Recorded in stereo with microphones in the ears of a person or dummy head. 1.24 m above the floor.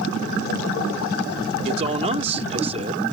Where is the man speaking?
35° right (ahead or behind).